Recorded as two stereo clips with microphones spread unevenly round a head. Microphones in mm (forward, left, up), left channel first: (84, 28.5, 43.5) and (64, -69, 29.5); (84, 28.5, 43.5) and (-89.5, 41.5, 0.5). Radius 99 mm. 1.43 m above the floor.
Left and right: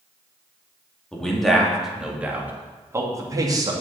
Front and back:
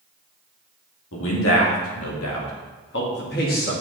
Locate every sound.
1.1 s a man speaking: 5° right, 2.5 m; by 3.7 s 55° right, 2.5 m